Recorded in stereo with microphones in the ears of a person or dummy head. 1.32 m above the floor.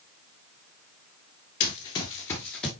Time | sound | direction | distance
1.6 | running footsteps | 30° left (ahead or behind) | 1.7 m